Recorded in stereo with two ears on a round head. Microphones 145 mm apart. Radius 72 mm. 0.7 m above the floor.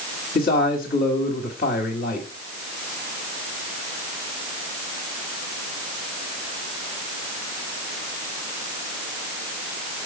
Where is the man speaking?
55° left (ahead or behind), 1.4 m.